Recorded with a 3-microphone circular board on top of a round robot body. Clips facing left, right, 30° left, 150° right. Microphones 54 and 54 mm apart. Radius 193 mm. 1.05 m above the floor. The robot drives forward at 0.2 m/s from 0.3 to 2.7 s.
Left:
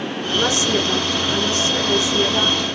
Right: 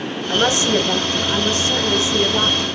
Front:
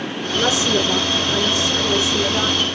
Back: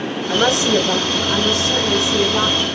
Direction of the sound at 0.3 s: 150° right.